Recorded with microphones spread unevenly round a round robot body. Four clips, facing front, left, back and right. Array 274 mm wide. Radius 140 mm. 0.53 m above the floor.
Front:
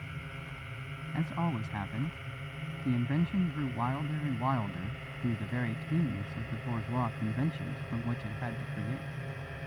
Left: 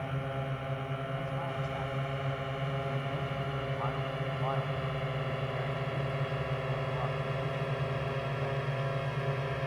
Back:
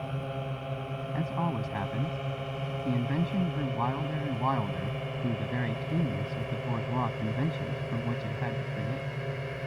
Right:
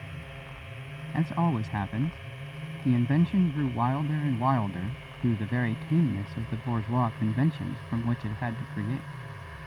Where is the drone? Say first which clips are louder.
Left 9 dB, back 10 dB; 145° left; by 9.7 s 125° left.